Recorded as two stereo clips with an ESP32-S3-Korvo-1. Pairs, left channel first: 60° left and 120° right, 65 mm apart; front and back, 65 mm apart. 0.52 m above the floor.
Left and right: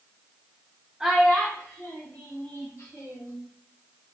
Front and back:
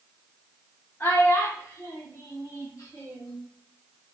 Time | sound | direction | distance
1.0 | a child speaking | 45° right | 0.7 m